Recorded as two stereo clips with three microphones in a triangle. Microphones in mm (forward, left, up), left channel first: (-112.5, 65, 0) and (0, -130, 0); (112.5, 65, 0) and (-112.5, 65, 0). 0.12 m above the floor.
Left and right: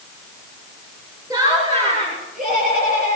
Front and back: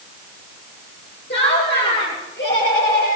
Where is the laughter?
10° left, 2.5 m; by 3.2 s 30° right, 3.5 m.